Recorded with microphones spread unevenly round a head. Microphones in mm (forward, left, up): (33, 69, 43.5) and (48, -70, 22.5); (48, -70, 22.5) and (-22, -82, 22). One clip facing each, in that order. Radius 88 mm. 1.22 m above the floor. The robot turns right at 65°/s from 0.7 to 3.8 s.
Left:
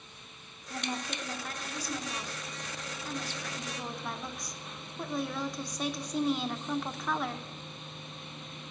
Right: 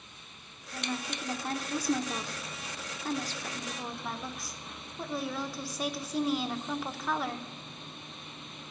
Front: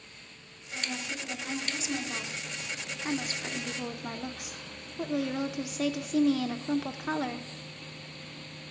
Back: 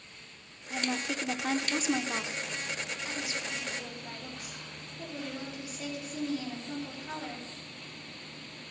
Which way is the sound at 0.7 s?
160° left.